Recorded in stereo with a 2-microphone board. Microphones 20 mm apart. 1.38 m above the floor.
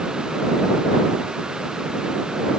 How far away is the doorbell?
No doorbell in this recording.